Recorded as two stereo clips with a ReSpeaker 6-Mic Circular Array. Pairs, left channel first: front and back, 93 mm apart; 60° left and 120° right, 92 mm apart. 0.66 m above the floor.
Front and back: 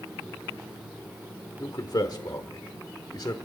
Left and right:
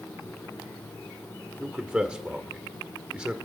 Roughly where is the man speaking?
Ahead right.